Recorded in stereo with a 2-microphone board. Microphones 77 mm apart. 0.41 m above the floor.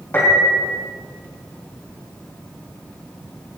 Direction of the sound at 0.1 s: 30° left (ahead or behind).